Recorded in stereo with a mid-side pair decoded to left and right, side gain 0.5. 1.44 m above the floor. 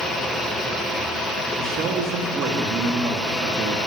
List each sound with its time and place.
1.6 s a man speaking: 70° right, 2.5 m